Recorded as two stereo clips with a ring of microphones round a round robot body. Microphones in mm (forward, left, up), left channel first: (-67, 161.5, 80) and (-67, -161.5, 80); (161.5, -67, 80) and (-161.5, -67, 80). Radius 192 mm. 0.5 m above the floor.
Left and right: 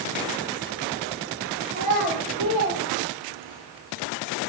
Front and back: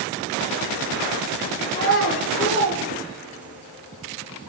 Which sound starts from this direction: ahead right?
A child speaking, at 1.7 s.